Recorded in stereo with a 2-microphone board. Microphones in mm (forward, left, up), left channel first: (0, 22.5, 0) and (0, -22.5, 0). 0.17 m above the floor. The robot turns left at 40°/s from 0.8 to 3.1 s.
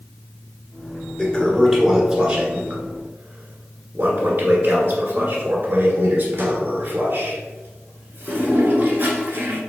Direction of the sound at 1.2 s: 25° left.